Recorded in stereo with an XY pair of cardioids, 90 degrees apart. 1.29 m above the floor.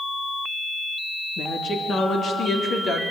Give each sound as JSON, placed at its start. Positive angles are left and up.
{"t": 1.4, "sound": "a woman speaking", "azimuth_deg": 60, "distance_m": 3.0}